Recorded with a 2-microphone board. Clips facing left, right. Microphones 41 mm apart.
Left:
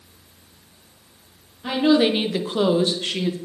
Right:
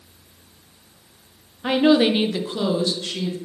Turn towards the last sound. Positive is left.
turn(degrees=45)  # may be behind; listen again after turning